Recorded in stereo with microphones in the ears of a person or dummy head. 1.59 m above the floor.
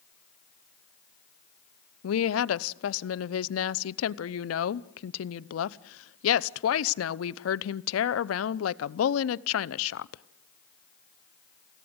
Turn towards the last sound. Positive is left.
turn(degrees=85)